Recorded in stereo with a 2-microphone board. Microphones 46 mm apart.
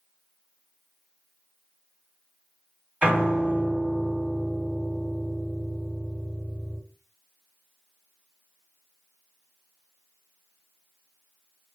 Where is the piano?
30° right (ahead or behind), 2 m.